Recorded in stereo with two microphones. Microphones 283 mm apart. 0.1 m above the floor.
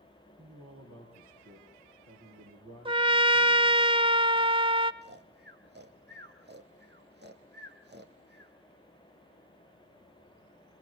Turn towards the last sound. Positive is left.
turn(degrees=-40)  # may be behind; listen again after turning